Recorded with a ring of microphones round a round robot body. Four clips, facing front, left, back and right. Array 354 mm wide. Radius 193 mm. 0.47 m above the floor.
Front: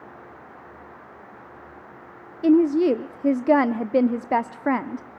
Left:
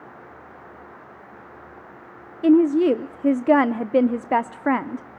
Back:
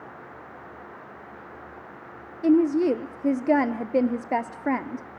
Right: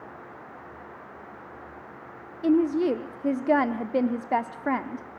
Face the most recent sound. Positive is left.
turn(degrees=60)